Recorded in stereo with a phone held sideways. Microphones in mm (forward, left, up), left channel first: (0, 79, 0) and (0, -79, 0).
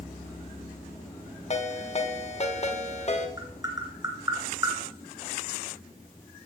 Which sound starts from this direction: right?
Tapping, at 3.4 s.